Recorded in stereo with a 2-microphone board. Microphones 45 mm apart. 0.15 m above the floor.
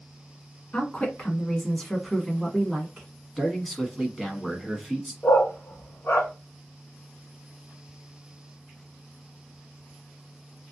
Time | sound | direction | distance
0.7 | a woman speaking | 35° left (ahead or behind) | 1.4 m
3.4 | a man speaking | 5° left (ahead or behind) | 1.0 m
5.2 | a dog barking | 65° left (ahead or behind) | 1.0 m